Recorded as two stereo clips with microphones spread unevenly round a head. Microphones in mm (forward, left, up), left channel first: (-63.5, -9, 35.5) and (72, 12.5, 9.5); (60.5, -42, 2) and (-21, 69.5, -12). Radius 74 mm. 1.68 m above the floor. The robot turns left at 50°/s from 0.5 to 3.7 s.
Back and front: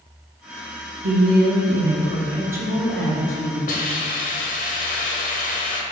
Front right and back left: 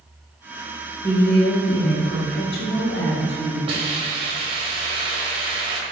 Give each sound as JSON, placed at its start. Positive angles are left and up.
{"t": 1.0, "sound": "a woman speaking", "azimuth_deg": 10, "distance_m": 0.9}
{"t": 3.7, "sound": "a hiss", "azimuth_deg": -175, "distance_m": 0.7}